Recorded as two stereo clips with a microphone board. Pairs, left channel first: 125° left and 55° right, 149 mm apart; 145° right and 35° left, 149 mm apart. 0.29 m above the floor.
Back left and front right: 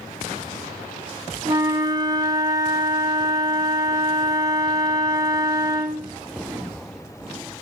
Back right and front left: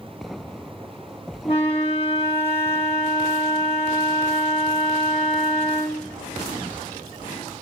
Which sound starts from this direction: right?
A flute, at 1.4 s.